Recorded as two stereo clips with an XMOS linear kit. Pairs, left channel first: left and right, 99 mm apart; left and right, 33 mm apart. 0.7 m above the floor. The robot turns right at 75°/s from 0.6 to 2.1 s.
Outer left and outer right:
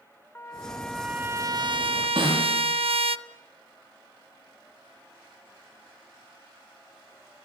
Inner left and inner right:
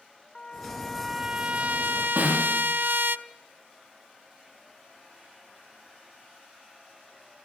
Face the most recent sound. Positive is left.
turn(degrees=-50)  # may be behind; listen again after turning